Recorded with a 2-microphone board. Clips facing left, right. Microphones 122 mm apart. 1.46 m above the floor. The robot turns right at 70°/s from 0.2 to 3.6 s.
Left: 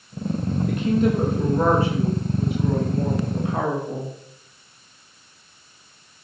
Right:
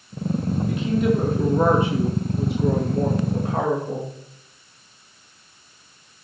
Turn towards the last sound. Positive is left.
turn(degrees=-35)